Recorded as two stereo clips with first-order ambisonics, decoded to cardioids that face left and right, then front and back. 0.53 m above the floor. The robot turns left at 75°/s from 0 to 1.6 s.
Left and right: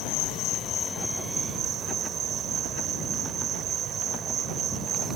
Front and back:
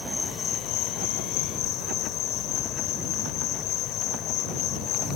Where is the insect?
85° left; by 5.2 s 35° right.